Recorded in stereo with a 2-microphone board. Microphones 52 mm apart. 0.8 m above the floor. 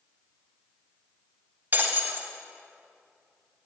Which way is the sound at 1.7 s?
40° right (ahead or behind).